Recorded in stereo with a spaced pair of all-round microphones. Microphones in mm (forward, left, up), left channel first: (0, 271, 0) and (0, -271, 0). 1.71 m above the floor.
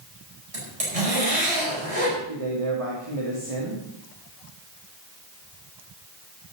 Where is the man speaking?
65° right (ahead or behind), 3 m.